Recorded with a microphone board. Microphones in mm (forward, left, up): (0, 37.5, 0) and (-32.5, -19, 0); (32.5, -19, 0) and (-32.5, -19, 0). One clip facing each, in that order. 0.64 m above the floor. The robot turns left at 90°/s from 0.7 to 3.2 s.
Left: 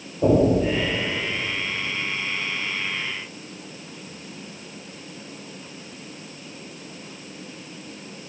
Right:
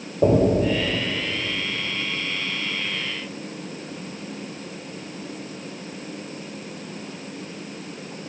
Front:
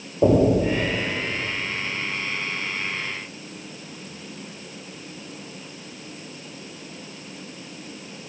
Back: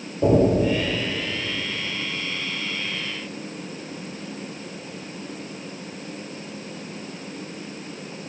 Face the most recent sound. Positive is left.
turn(degrees=75)